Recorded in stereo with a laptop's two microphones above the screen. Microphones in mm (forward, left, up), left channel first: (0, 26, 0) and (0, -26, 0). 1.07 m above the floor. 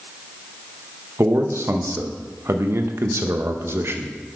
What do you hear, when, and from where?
1.2 s a man speaking: 60° right (ahead or behind), 0.7 m